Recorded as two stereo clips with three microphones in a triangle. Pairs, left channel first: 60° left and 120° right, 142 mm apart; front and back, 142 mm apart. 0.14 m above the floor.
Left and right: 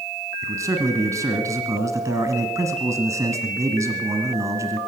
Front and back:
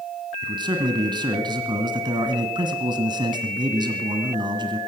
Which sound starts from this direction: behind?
A man speaking, at 0.4 s.